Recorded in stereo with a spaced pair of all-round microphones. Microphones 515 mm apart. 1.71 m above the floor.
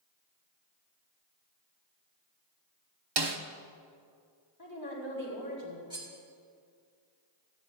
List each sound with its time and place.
3.2 s a snare drum: 50° right (ahead or behind), 0.9 m
4.6 s a woman speaking: 45° left (ahead or behind), 4.5 m
5.9 s cutlery clinking: 10° right (ahead or behind), 2.5 m